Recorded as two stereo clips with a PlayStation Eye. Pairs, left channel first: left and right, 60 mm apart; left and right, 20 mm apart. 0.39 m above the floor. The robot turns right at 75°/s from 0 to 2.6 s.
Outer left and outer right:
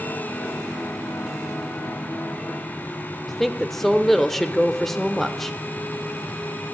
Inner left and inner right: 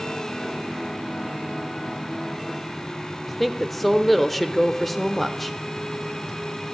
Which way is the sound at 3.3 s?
5° left (ahead or behind).